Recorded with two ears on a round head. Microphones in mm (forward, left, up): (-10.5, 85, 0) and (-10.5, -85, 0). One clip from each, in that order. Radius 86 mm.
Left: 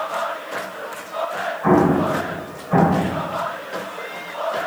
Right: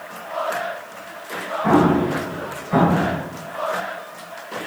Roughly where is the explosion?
Left.